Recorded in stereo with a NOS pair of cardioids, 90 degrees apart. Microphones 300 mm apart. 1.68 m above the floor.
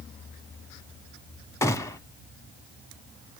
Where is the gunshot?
10° left, 0.9 m.